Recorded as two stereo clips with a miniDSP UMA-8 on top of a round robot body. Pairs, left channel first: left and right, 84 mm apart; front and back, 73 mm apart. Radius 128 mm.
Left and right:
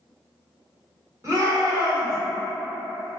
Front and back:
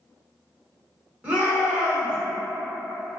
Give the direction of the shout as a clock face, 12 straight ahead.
4 o'clock.